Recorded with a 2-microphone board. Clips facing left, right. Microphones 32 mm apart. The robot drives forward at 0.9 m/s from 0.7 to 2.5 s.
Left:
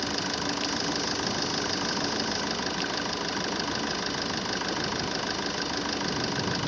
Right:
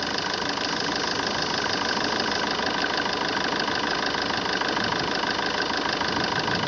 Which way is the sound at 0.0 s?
25° right (ahead or behind).